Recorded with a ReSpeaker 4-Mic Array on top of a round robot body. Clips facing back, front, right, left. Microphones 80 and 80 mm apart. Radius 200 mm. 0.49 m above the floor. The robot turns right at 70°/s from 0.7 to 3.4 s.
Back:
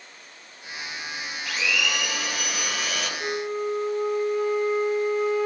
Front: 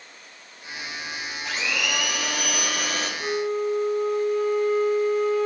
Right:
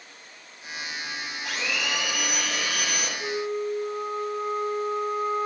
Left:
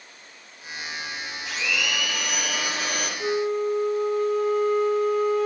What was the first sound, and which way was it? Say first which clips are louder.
A blender: back 1 dB, left 2 dB; 65° right.